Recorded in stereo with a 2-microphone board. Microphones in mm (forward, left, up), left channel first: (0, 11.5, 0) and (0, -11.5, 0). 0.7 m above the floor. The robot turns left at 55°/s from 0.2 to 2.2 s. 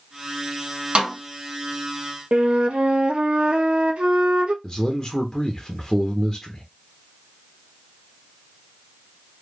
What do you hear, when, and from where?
0.9 s a snare drum: 55° right (ahead or behind), 1.5 m
2.3 s a flute: 65° right (ahead or behind), 0.5 m
4.6 s a man speaking: 15° left (ahead or behind), 0.7 m